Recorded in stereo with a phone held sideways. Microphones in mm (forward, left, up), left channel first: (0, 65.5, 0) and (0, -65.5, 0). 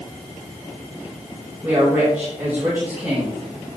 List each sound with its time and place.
1.6 s a woman speaking: 20° right (ahead or behind), 4 m